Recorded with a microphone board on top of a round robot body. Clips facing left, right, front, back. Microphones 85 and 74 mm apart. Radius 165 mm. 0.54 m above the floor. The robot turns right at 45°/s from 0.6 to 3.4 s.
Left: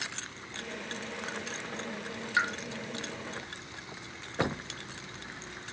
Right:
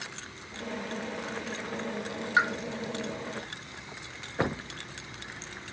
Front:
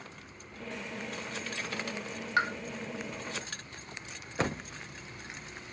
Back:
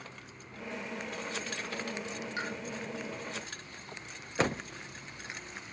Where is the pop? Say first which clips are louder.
Right 4 dB, front 10 dB; 30° right, 0.9 m; by 2.5 s 25° right, 0.9 m.